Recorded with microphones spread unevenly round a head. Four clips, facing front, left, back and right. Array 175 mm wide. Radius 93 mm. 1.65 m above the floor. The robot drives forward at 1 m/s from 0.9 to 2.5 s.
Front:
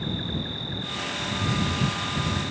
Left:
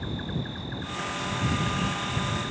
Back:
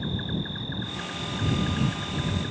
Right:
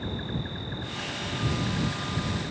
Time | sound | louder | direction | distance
0.0 | an insect | left 1 dB, even | 105° left | ?